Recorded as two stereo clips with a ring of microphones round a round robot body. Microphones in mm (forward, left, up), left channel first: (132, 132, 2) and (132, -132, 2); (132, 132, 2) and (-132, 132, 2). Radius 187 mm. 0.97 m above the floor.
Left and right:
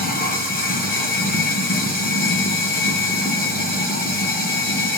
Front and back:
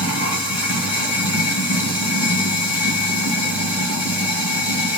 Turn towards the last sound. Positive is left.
turn(degrees=30)